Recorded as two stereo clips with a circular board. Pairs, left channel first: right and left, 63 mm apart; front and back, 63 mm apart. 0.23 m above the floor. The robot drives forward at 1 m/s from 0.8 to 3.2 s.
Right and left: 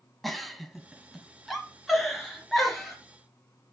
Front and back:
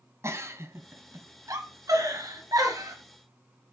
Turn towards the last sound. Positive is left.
turn(degrees=180)